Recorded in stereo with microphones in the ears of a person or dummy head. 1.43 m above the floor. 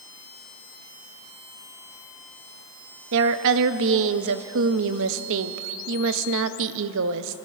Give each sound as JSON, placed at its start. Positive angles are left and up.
{"t": 3.1, "sound": "a woman speaking", "side_deg": -65, "distance_m": 0.7}